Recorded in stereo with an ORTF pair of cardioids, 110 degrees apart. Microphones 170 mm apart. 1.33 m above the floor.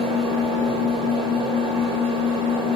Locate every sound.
0.0 s an engine running: 35° right, 0.8 m